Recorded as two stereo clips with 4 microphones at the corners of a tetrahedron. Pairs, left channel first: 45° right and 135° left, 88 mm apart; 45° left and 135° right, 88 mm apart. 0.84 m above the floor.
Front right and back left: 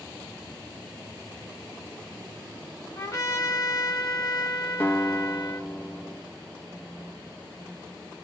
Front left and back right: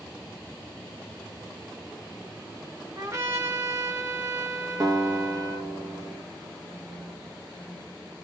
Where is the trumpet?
90° right, 1.0 m.